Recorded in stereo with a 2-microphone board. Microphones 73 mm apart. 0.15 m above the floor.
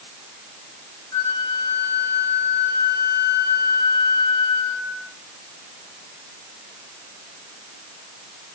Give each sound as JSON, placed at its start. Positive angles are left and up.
{"t": 1.1, "sound": "a flute", "side_deg": 70, "distance_m": 2.5}